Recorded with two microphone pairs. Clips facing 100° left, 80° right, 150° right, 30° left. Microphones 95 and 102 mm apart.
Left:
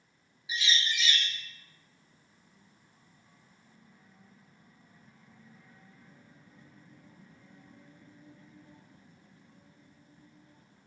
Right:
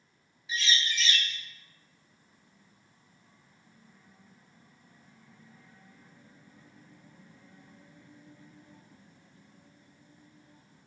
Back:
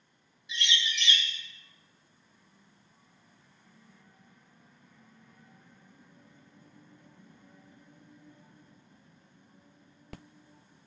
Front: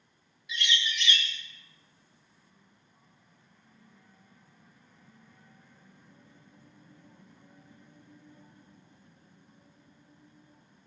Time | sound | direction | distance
0.5 | a bird | 170° left | 0.7 m